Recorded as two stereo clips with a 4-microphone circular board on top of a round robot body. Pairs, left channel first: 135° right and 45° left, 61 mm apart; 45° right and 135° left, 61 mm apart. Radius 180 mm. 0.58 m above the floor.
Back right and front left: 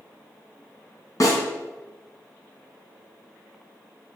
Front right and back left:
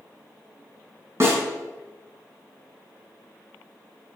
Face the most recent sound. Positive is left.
turn(degrees=-175)